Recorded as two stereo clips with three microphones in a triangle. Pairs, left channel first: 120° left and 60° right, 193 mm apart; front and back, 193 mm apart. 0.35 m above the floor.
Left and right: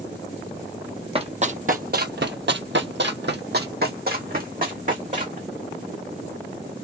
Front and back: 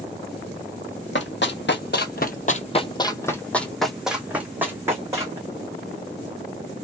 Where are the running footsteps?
Straight ahead, 0.9 m; by 5.4 s 105° right, 1.8 m.